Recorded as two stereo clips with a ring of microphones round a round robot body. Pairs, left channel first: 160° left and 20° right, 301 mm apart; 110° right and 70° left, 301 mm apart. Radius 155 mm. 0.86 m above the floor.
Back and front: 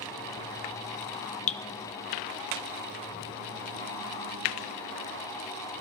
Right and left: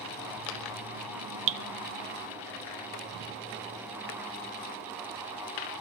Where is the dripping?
90° left, 0.6 m.